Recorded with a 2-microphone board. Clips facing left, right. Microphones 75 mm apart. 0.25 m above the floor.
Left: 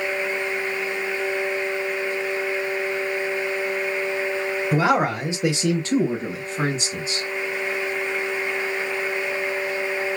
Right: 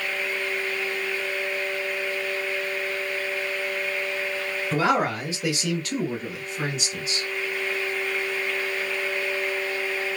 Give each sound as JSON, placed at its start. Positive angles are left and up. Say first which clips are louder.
{"t": 4.7, "sound": "a man speaking", "louder": "left 2 dB", "side_deg": 10, "distance_m": 1.0}